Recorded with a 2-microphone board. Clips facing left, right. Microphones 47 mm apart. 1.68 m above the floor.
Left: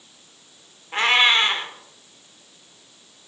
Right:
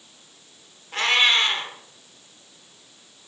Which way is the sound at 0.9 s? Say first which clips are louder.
Left 2 dB; 25° left (ahead or behind).